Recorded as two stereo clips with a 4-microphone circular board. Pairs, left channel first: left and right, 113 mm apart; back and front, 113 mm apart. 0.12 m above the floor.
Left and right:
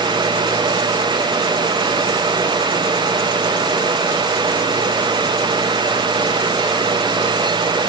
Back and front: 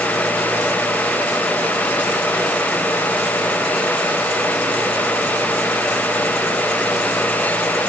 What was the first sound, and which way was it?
Only background noise.